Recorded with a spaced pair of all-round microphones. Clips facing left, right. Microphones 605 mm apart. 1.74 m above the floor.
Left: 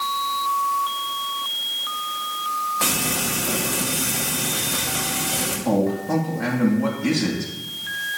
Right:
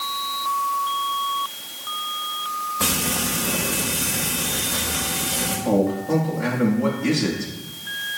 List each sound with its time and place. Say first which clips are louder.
2.8 s frying: right 1 dB; 60° right (ahead or behind), 5.5 m
5.7 s a man speaking: right 1 dB; 20° left (ahead or behind), 2.5 m